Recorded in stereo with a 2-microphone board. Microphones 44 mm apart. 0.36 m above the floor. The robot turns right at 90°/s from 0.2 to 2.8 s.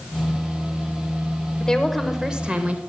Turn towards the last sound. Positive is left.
turn(degrees=-110)